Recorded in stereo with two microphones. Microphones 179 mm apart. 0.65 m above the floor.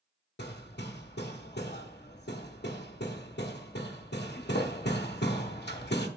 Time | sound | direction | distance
0.4 | hammering | 65° left (ahead or behind) | 0.9 m